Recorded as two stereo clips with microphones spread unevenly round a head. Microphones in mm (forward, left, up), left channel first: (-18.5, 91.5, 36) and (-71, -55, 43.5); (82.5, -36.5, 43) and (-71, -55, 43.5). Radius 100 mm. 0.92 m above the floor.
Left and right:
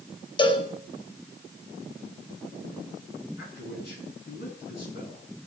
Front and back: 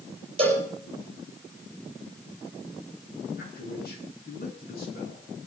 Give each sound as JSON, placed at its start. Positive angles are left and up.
{"t": 0.4, "sound": "a cowbell", "azimuth_deg": 125, "distance_m": 5.0}
{"t": 3.4, "sound": "a man speaking", "azimuth_deg": 40, "distance_m": 9.5}